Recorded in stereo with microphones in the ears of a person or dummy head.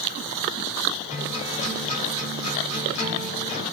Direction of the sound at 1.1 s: 35° left (ahead or behind).